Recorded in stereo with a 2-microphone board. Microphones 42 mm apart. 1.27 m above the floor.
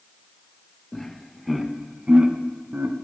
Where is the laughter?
10° left (ahead or behind), 1.4 m; by 3.0 s 55° right (ahead or behind), 1.1 m.